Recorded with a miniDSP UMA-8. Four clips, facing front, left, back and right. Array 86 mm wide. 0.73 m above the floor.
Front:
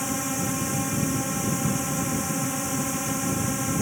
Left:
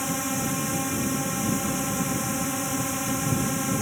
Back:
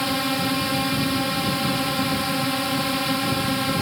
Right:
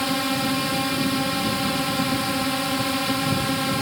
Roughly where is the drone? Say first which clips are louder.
Right 5 dB, back 5 dB; behind right.